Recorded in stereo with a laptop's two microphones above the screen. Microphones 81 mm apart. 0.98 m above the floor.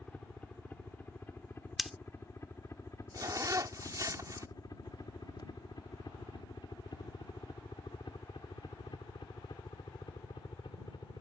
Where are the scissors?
Centre (ahead or behind).